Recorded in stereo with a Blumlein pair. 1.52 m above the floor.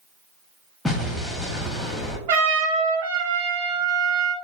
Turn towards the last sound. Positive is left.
turn(degrees=-50)